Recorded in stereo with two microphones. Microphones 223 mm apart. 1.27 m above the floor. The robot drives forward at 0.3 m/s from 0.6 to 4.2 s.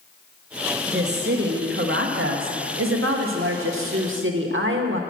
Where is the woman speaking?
50° right (ahead or behind), 1.2 m; by 5.0 s 65° right (ahead or behind), 1.0 m.